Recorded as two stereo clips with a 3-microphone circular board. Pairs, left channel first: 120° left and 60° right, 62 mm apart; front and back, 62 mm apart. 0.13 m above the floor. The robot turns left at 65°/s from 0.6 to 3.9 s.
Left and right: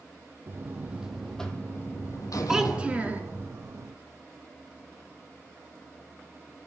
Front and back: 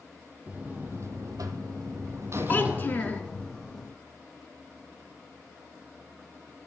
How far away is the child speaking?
About 0.9 m.